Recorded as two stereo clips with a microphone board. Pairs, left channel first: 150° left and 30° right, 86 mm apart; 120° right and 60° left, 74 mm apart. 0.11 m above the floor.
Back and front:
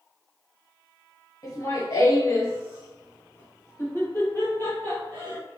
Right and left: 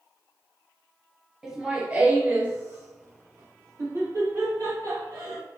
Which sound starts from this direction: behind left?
Laughter, at 1.4 s.